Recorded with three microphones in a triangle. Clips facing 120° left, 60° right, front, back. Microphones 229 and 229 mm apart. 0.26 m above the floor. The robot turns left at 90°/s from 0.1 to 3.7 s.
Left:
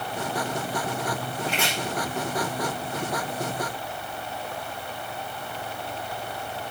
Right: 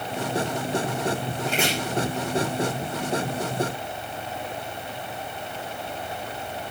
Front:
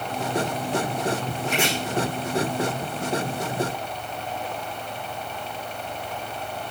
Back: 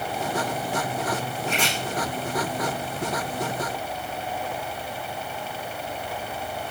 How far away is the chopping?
About 9 m.